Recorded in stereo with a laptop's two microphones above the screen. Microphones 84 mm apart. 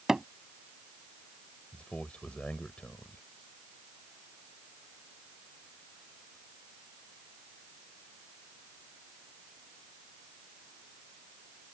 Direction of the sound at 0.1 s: 5° right (ahead or behind).